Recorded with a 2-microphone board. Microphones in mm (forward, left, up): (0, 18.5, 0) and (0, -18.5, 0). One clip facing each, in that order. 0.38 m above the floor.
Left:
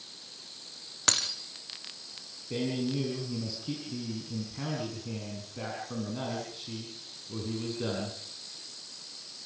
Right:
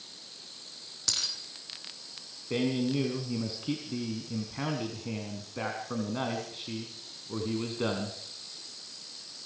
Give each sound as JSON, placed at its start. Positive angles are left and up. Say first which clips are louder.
{"t": 1.1, "sound": "breaking glass", "louder": "left 4 dB", "side_deg": 50, "distance_m": 2.5}
{"t": 2.5, "sound": "a man speaking", "louder": "right 3 dB", "side_deg": -30, "distance_m": 4.0}